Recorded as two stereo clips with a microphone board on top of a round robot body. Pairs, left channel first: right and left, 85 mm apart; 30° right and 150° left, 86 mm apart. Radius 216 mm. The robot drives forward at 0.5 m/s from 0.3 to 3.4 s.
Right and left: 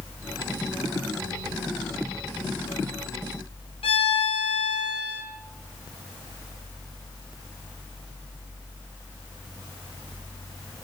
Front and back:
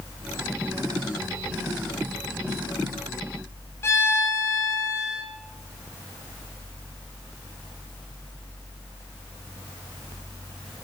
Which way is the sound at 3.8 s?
90° right.